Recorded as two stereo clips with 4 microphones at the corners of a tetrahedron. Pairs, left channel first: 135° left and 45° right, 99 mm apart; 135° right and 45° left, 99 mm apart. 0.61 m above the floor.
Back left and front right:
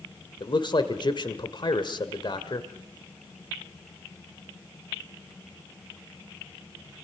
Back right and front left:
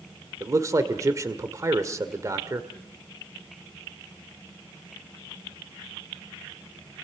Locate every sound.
0.4 s a man speaking: 100° left, 1.8 m